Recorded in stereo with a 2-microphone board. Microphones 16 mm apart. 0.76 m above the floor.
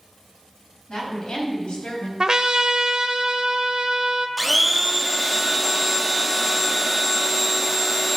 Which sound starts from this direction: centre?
A blender, at 4.4 s.